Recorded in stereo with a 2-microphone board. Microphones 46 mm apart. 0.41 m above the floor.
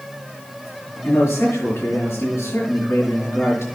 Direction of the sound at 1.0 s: 80° left.